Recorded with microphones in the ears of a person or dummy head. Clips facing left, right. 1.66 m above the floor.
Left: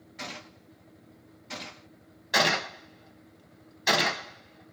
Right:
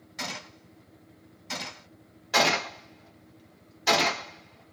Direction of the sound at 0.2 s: 70° right (ahead or behind).